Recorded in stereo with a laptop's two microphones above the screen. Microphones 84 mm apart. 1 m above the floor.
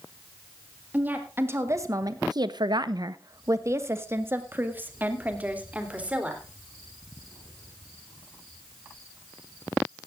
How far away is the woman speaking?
About 1.6 m.